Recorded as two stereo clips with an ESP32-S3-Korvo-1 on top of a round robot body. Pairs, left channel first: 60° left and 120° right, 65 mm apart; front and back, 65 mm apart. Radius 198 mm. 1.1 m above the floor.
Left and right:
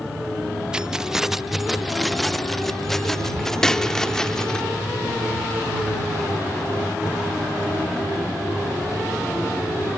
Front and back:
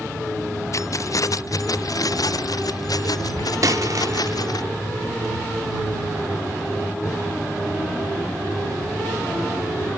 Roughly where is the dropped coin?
Behind left.